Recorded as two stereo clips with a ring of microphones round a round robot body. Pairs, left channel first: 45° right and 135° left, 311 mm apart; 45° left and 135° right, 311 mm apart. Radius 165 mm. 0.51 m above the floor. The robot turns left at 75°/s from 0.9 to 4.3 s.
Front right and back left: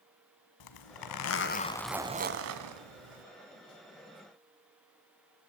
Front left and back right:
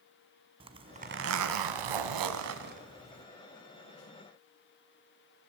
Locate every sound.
0.6 s a zipper: 60° right, 1.6 m; by 3.2 s 120° left, 1.6 m